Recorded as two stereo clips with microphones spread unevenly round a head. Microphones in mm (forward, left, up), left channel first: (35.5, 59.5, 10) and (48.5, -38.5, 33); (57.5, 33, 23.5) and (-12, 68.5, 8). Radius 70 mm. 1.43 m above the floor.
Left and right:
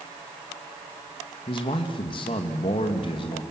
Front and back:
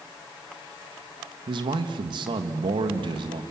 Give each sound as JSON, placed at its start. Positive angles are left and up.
{"t": 1.5, "sound": "a man speaking", "azimuth_deg": 145, "distance_m": 2.0}